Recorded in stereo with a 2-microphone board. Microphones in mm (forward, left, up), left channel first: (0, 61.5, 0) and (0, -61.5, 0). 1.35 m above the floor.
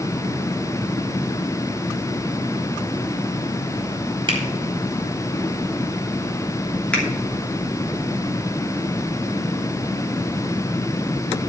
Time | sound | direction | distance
4.3 | a finger snap | 45° right (ahead or behind) | 3.5 m
6.9 | a finger snap | 10° left (ahead or behind) | 2.5 m